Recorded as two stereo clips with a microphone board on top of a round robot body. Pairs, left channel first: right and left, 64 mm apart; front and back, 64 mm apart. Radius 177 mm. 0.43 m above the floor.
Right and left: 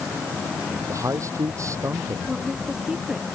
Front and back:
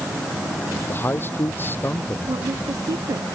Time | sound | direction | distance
0.9 | a man speaking | 55° left | ?
2.3 | a woman speaking | 170° left | ?